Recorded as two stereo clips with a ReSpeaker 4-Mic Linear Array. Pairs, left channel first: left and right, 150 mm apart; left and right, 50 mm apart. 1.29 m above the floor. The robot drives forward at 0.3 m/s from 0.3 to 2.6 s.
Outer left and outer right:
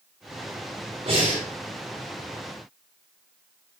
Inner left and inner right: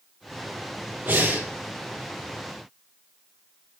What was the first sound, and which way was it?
Breathing, 40° right (ahead or behind).